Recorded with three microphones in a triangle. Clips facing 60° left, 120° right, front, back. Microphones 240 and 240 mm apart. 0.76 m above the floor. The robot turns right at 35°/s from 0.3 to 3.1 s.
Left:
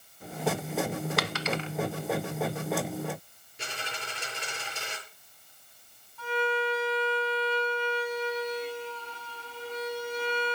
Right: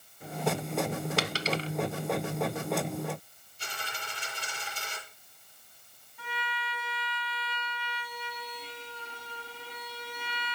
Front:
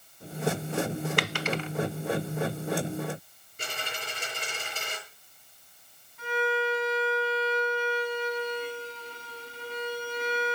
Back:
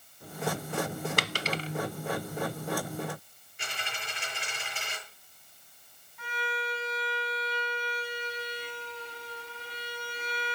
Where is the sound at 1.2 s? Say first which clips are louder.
Even, front 3 dB; 165° right, 0.8 m; by 1.7 s 150° right, 0.8 m.